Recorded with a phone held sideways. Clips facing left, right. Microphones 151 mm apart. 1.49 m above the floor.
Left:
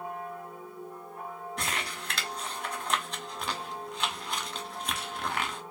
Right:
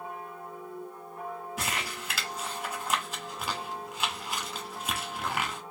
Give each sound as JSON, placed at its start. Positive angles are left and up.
{"t": 1.6, "sound": "crumpling", "side_deg": -5, "distance_m": 1.1}